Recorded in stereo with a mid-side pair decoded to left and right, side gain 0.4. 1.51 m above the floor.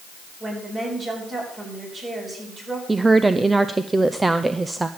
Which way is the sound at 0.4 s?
40° right.